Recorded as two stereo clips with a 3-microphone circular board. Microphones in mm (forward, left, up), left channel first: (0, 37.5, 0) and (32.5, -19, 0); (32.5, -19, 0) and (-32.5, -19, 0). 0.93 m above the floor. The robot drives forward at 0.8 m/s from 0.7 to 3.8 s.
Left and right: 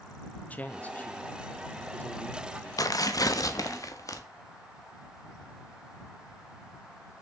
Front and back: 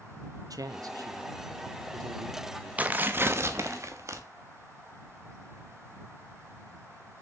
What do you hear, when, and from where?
0.5 s a man speaking: 175° right, 1.2 m; by 2.7 s straight behind, 2.5 m
2.8 s tearing paper: 115° left, 1.1 m; by 4.2 s 145° left, 1.6 m